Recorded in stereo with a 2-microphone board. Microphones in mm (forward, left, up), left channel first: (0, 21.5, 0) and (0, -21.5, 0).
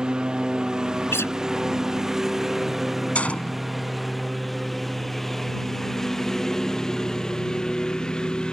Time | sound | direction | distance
0.0 | a lawn mower | 20° right (ahead or behind) | ?
1.1 | a guitar | 70° left (ahead or behind) | ?
3.1 | a gunshot | 30° left (ahead or behind) | ?